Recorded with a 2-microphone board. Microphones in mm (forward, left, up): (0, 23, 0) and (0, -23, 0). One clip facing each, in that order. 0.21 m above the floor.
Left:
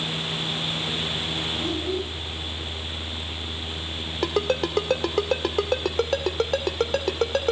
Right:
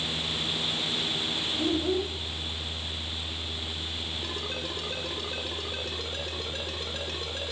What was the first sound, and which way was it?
A child speaking, 25° right (ahead or behind).